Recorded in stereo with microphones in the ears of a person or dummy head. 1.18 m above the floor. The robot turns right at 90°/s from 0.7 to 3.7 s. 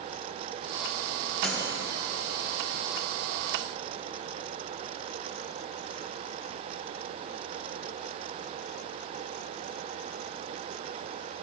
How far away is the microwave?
About 0.7 m.